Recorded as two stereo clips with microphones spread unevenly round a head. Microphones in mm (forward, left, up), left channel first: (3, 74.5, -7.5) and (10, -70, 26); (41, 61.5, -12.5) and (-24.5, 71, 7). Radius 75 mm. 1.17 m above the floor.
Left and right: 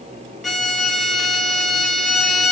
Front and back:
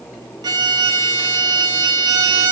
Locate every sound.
0.4 s a violin: straight behind, 2.5 m